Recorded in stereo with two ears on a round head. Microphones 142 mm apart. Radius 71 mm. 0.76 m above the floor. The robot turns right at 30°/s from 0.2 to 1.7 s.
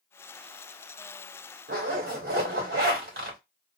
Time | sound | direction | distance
1.7 | a zipper | 65° right (ahead or behind) | 1.6 m